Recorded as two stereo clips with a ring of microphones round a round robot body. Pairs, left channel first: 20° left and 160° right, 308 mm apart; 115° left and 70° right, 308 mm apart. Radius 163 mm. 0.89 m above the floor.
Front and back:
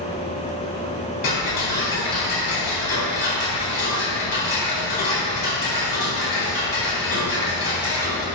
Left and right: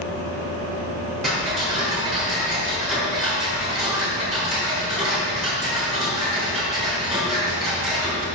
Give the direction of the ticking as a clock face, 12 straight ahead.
11 o'clock.